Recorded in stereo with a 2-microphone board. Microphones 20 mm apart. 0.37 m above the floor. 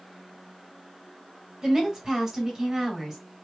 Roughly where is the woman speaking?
Right.